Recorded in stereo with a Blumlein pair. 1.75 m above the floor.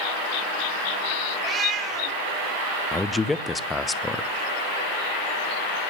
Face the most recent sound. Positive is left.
turn(degrees=10)